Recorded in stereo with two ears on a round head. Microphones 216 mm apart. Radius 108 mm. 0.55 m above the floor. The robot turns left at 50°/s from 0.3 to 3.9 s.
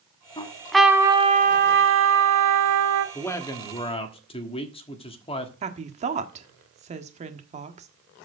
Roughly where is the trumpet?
Ahead.